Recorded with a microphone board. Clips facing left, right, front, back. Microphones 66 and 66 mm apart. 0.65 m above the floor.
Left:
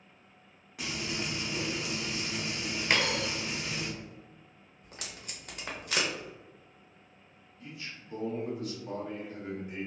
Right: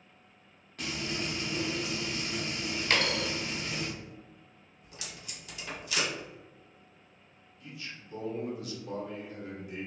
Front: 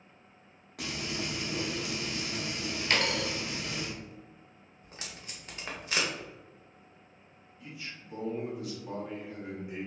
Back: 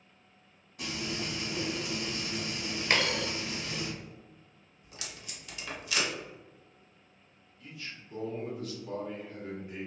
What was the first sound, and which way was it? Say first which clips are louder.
Frying: right 1 dB, even; 10° left.